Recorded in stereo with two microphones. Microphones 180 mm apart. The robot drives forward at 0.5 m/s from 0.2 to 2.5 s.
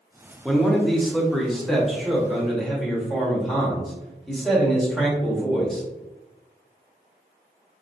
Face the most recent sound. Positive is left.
turn(degrees=0)  # may be behind; listen again after turning